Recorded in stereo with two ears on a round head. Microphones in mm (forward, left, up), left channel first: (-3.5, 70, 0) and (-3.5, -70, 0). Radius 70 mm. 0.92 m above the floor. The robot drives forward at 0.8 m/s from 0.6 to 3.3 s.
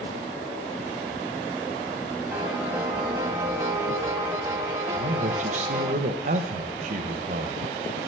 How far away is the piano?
About 1.1 m.